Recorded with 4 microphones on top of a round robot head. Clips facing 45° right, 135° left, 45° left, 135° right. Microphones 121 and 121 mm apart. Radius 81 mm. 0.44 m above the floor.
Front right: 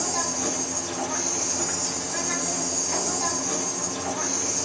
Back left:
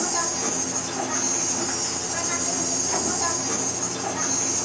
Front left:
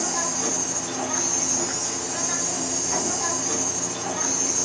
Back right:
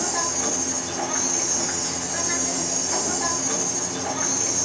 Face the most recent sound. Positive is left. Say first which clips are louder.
# back left 1 dB, back right 1 dB
turn(degrees=135)